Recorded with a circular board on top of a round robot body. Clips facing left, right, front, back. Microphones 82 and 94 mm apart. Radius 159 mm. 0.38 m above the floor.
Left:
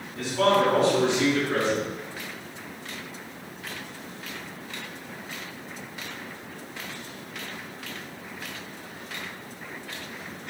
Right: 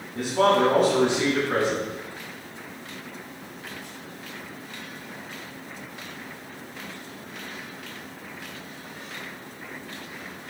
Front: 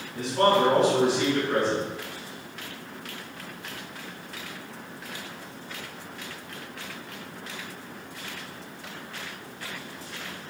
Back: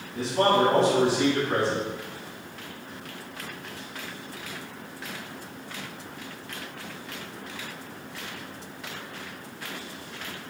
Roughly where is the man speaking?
Behind right.